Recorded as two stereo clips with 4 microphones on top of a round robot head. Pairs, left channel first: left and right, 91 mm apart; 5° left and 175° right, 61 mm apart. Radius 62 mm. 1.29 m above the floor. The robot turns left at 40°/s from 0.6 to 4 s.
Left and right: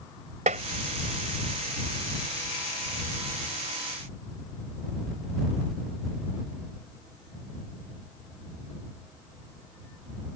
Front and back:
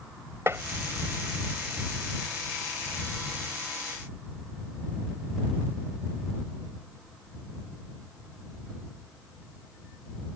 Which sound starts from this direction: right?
Tapping, at 0.5 s.